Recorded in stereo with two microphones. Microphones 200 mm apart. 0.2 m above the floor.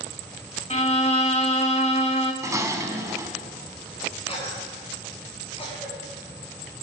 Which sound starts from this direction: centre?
Dishes clattering, at 2.4 s.